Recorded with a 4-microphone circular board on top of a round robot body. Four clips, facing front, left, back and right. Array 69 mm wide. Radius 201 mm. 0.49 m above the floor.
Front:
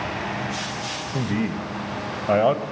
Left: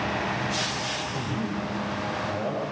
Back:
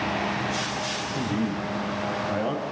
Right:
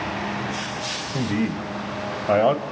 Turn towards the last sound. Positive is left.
turn(degrees=-50)